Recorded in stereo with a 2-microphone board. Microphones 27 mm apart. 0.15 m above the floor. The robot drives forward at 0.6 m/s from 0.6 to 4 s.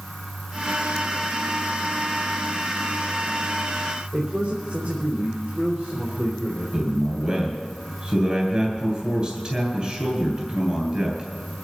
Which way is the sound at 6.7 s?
35° right (ahead or behind).